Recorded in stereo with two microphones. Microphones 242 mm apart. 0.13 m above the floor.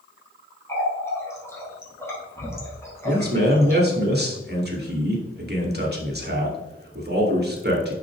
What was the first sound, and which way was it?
A running tap, 10° left (ahead or behind).